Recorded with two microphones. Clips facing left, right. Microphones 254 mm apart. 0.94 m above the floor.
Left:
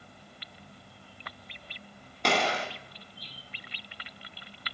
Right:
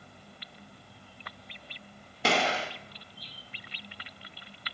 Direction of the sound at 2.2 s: 5° right (ahead or behind).